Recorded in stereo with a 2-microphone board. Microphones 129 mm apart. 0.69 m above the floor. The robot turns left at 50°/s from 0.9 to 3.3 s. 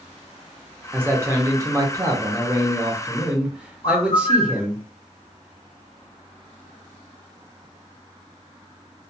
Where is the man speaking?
15° right (ahead or behind), 0.6 m; by 4.8 s 10° right (ahead or behind), 0.6 m.